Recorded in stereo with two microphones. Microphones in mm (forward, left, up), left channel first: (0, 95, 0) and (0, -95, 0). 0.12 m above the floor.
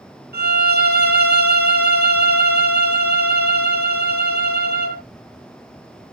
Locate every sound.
0.3 s a violin: 60° right (ahead or behind), 1.0 m